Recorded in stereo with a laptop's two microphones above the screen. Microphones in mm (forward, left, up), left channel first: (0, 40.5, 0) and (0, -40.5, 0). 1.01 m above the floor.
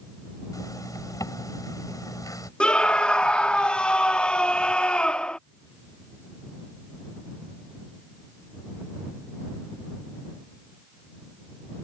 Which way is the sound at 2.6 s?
10° left (ahead or behind).